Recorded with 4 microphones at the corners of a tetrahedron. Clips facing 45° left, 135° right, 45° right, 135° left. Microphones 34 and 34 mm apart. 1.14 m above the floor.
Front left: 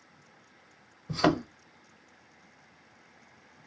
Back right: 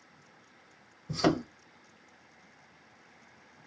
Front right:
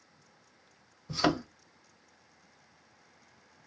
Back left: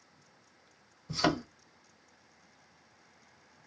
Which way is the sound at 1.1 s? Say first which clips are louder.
Front left 2 dB, front right 1 dB; 30° left.